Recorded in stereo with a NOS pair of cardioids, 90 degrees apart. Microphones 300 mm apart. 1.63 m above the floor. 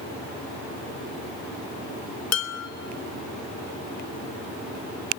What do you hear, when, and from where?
2.3 s dishes clattering: 60° left, 3 m